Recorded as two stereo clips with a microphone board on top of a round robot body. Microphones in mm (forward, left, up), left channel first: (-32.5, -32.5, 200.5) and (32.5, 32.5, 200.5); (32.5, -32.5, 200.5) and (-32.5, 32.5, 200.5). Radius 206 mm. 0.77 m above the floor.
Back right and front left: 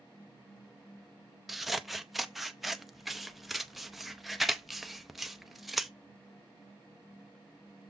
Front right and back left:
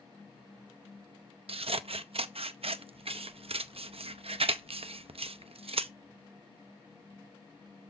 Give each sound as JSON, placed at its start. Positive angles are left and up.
{"t": 1.5, "sound": "scissors", "azimuth_deg": 135, "distance_m": 0.8}